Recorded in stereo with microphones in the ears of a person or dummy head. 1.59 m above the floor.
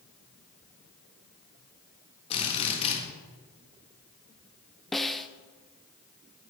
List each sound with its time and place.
2.3 s a drill: 30° left (ahead or behind), 3.5 m
4.9 s a snare drum: centre (ahead or behind), 0.7 m